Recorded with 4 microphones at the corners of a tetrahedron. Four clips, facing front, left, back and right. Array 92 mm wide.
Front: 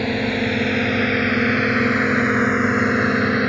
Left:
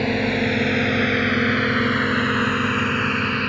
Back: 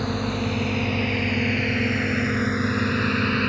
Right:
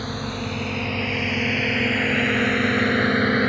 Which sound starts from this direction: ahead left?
A drone, at 0.0 s.